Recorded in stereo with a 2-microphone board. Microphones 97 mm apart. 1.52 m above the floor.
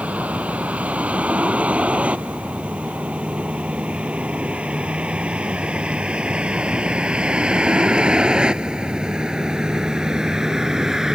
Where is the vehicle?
15° right (ahead or behind); by 11.2 s 5° right (ahead or behind).